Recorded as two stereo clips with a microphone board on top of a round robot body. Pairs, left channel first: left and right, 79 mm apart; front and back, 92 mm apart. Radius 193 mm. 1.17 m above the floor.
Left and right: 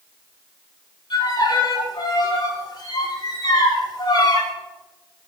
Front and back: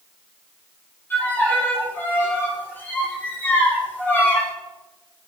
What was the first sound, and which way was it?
A violin, 65° left.